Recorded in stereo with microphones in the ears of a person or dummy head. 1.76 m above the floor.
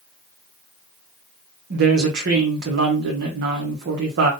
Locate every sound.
1.7 s a woman speaking: 55° right (ahead or behind), 1.0 m